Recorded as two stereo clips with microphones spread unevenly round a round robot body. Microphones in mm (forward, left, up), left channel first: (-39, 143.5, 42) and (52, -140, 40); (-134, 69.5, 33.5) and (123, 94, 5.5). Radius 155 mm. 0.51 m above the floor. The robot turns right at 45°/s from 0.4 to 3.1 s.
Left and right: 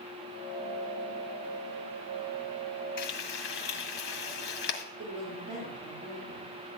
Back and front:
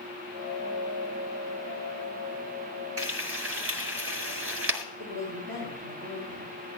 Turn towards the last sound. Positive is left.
turn(degrees=-30)